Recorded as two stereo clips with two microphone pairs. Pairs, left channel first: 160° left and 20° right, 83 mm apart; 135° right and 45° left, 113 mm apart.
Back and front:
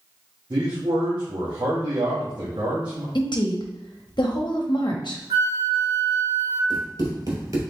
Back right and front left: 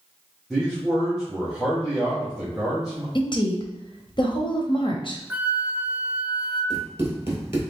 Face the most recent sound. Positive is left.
turn(degrees=-10)